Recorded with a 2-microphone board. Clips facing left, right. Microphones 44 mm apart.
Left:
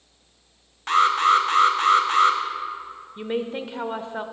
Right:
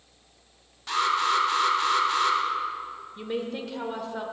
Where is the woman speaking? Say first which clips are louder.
Left 4 dB; 25° left (ahead or behind), 0.9 m.